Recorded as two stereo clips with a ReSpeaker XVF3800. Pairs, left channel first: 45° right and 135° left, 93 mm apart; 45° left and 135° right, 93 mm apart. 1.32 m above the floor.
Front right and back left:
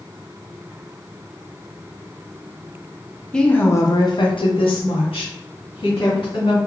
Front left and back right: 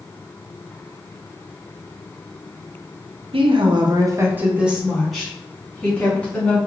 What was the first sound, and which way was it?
A woman speaking, 130° right.